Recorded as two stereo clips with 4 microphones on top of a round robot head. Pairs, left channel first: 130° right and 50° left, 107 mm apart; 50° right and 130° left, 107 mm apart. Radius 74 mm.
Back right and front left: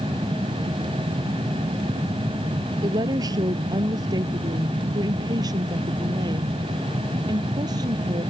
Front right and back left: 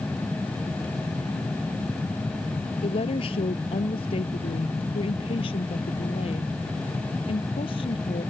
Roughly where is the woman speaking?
Ahead.